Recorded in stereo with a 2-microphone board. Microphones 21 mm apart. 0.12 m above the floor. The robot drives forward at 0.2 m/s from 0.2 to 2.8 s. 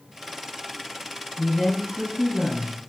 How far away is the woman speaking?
About 1.8 m.